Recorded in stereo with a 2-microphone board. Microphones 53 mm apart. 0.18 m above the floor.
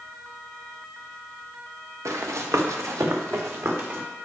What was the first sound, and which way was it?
Running footsteps, 80° right.